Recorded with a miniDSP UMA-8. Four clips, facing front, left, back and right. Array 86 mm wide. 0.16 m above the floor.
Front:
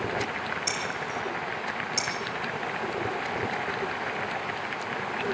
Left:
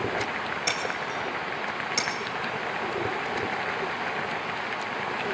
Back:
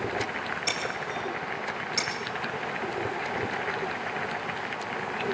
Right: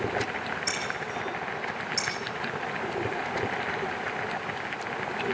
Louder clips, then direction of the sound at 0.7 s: Left 3 dB, even; 80° left.